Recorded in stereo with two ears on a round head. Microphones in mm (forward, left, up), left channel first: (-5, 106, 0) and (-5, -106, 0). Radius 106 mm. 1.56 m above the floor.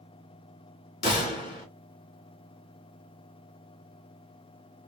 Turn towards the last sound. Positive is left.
turn(degrees=45)  # may be behind; listen again after turning